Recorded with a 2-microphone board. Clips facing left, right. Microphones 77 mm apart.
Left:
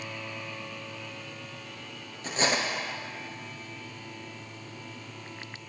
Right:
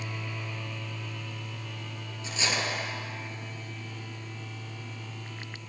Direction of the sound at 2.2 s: 45° left (ahead or behind).